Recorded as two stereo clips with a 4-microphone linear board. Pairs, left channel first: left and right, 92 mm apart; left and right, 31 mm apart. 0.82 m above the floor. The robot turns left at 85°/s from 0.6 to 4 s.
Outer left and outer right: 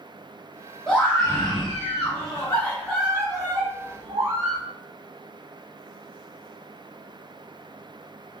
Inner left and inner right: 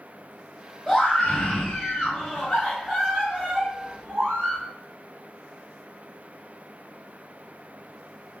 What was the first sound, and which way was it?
A scream, 170° left.